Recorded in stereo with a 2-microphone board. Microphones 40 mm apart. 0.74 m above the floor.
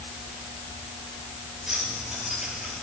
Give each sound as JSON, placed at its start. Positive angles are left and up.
{"t": 1.7, "sound": "keys jangling", "side_deg": -10, "distance_m": 10.0}